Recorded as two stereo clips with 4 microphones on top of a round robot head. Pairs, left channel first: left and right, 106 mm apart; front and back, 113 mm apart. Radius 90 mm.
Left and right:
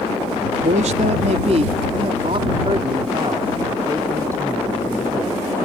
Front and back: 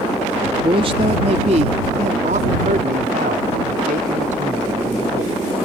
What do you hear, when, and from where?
0.6 s a man speaking: 120° right; by 5.3 s 165° right